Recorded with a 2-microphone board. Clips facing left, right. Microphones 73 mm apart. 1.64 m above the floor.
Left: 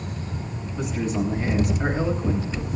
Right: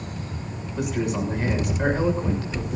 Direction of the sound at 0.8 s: 85° right.